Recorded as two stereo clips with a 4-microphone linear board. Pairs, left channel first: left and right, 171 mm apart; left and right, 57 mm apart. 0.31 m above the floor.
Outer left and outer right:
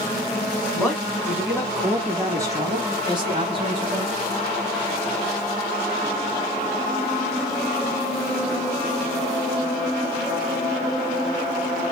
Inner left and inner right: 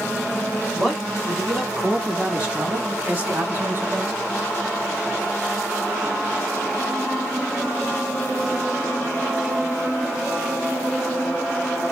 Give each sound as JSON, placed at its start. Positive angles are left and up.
{"t": 0.8, "sound": "a man speaking", "side_deg": -5, "distance_m": 2.5}